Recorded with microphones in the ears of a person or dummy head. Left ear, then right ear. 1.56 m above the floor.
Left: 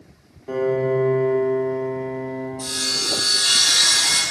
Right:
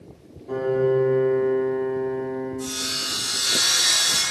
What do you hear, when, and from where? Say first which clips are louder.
0.5 s a piano: left 1 dB; 70° left (ahead or behind), 2.5 m
2.6 s sawing: left 7 dB; 55° left (ahead or behind), 2.5 m